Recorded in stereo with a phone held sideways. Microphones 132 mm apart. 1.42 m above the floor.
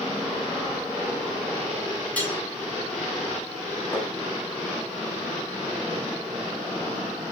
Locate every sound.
2.2 s cutlery clinking: 10° left (ahead or behind), 8.5 m
3.9 s tapping: 15° left (ahead or behind), 6.5 m